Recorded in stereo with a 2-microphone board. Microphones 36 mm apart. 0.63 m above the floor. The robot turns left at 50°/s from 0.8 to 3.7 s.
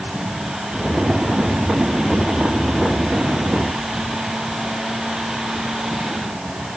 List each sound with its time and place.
Only background noise.